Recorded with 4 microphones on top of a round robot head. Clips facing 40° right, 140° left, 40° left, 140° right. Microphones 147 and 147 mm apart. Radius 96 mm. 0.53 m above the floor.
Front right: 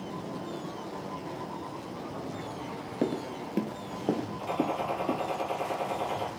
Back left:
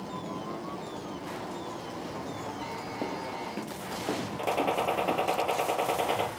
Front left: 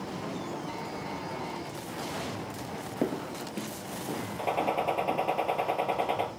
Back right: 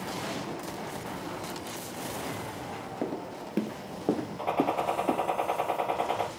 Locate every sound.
3.0 s footsteps: 20° right, 0.5 m; by 5.3 s 110° right, 3 m
4.4 s a gunshot: 110° left, 4 m